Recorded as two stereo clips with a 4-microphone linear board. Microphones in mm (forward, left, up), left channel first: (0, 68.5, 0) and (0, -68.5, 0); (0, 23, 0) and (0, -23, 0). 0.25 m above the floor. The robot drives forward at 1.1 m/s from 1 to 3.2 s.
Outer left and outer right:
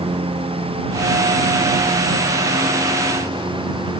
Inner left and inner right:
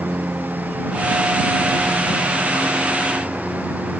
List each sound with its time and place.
0.0 s a lawn mower: 45° right (ahead or behind); by 4.0 s 40° right (ahead or behind)